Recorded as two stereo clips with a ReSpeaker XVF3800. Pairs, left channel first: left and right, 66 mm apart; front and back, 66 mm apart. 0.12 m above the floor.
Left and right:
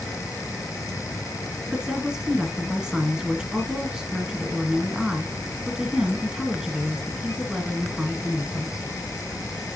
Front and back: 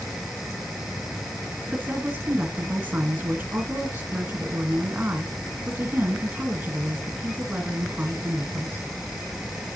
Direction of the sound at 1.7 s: 155° right.